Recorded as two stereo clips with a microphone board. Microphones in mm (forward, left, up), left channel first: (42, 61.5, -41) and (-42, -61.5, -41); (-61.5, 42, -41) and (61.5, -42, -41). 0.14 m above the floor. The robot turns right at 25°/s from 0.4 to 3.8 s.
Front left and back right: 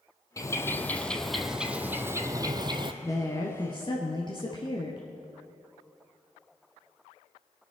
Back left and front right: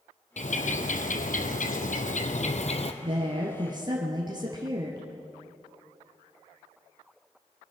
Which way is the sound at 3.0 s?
5° right.